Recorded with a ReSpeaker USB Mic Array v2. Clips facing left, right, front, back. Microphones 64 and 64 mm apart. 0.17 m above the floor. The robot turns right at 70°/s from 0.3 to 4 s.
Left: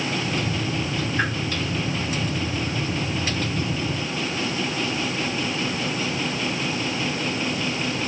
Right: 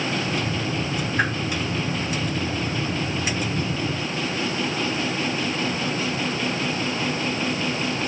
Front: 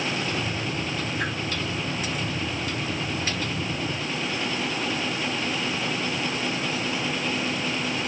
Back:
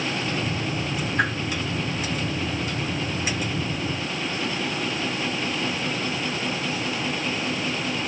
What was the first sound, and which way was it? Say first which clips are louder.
A whoosh: right 2 dB, back 8 dB; 165° right.